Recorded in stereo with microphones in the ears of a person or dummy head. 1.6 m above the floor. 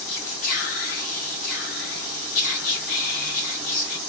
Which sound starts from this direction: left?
Whispering, at 0.1 s.